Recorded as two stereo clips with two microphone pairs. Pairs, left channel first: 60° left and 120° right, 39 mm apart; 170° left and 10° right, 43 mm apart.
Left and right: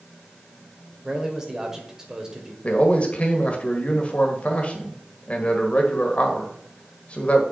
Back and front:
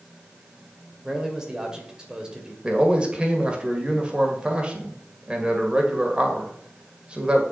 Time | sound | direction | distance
1.0 | a man speaking | 65° right | 1.6 m
2.6 | a man speaking | 35° left | 1.6 m